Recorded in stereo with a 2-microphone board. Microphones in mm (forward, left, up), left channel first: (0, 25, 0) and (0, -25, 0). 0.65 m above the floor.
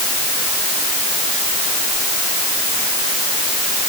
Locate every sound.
Only background noise.